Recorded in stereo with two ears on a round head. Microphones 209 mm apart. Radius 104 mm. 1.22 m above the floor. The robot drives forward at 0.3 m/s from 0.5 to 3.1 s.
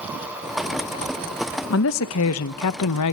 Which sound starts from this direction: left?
A woman speaking, at 1.7 s.